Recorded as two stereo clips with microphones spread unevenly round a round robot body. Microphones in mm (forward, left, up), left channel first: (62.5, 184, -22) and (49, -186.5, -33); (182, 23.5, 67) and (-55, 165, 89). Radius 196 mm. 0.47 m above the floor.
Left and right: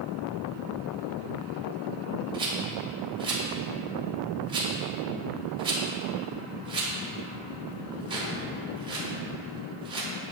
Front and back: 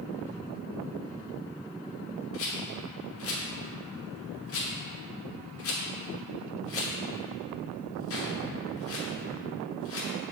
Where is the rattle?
20° right, 1.4 m.